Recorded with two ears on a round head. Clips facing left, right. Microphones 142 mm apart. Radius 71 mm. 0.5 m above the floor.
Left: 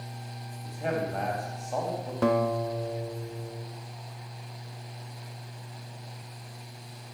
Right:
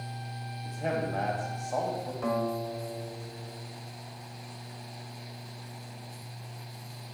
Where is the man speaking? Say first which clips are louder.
Left 1 dB; centre (ahead or behind), 3.5 m.